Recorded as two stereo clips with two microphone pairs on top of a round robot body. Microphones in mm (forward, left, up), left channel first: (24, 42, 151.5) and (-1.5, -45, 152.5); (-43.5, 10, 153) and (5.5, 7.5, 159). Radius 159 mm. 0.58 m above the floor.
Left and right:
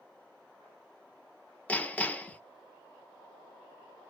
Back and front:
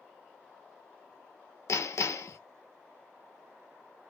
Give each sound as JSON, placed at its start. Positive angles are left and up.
{"t": 1.7, "sound": "hammering", "azimuth_deg": 150, "distance_m": 0.5}